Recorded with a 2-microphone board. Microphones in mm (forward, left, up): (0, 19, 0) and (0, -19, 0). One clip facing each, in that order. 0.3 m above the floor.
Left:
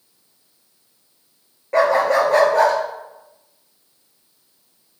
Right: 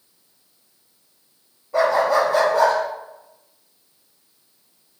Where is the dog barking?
75° left (ahead or behind), 2.5 m; by 2.8 s 60° left (ahead or behind), 2.5 m.